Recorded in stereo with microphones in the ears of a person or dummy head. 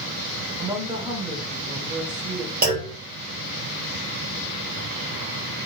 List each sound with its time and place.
0.6 s a woman speaking: 30° right (ahead or behind), 1.1 m
2.6 s a clunk: 50° right (ahead or behind), 1.8 m